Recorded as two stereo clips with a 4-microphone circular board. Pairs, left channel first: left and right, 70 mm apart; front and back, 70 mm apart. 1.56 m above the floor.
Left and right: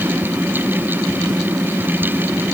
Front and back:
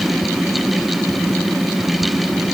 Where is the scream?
I don't hear a scream.